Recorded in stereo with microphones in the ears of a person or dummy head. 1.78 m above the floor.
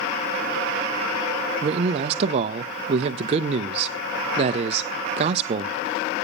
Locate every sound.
1.6 s a man speaking: 40° right (ahead or behind), 0.6 m